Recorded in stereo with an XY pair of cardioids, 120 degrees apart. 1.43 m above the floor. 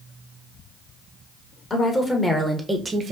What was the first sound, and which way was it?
A woman speaking, 25° left.